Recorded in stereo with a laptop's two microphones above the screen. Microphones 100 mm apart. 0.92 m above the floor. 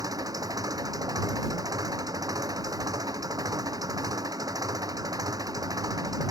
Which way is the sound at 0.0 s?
35° right (ahead or behind).